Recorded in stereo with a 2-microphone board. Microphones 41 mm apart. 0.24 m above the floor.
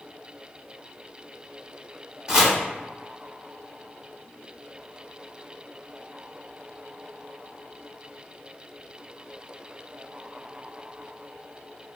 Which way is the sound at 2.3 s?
15° right (ahead or behind).